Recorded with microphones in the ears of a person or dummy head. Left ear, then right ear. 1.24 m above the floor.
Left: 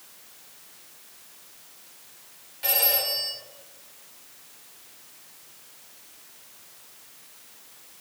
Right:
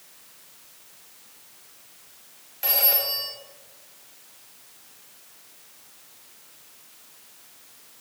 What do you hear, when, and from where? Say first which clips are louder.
2.6 s a phone ringing: even; 30° right (ahead or behind), 1.4 m